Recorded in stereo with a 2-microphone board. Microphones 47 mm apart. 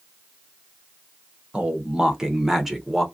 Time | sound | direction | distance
1.5 | a man speaking | 25° right (ahead or behind) | 0.9 m